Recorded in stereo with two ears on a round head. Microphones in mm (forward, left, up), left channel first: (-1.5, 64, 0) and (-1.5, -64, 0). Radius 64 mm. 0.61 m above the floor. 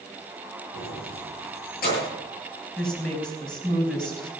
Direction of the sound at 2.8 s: 5° left (ahead or behind).